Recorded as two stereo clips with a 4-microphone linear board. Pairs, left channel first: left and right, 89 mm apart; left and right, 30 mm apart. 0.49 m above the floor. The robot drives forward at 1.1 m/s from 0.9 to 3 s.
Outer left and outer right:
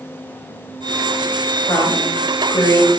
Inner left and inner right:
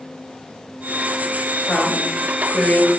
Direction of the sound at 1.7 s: 40° left (ahead or behind).